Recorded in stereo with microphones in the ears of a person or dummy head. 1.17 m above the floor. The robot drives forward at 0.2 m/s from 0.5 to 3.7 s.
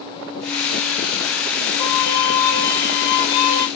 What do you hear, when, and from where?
1.8 s a violin: 30° left (ahead or behind), 1.6 m; by 3.7 s 25° left (ahead or behind), 1.9 m